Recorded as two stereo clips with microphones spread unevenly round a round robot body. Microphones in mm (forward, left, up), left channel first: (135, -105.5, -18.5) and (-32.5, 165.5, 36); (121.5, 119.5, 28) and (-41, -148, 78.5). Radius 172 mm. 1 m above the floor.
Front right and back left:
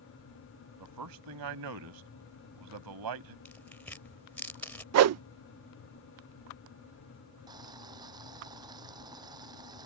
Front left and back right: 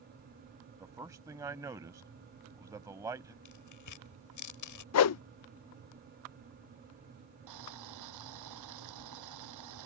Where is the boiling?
160° right.